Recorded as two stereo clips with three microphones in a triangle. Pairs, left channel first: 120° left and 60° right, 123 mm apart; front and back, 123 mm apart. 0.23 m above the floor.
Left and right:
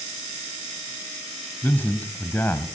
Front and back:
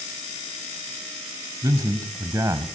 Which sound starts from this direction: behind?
A man speaking, at 1.6 s.